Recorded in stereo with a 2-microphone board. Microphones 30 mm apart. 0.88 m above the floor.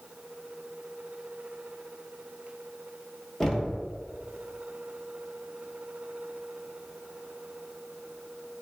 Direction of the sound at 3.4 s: 5° left (ahead or behind).